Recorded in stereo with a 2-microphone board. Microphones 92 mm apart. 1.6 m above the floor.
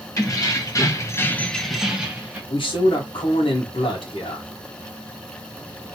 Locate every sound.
0.2 s keys jangling: 35° left (ahead or behind), 1.5 m; by 2.4 s 15° right (ahead or behind), 1.5 m
2.5 s a man speaking: 70° left (ahead or behind), 1.6 m